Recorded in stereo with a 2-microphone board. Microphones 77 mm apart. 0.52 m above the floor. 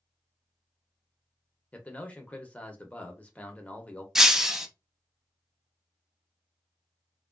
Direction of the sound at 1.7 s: 20° left (ahead or behind).